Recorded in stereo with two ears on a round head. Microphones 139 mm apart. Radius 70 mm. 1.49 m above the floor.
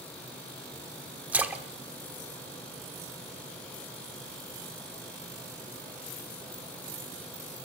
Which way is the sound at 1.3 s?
10° right (ahead or behind).